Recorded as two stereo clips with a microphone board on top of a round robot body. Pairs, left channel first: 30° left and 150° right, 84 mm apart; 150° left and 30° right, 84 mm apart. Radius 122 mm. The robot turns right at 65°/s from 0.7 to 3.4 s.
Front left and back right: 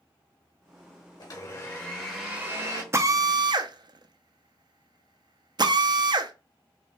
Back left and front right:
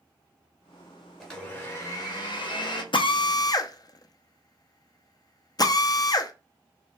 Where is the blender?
60° left, 1.8 m; by 2.8 s 165° left, 1.8 m.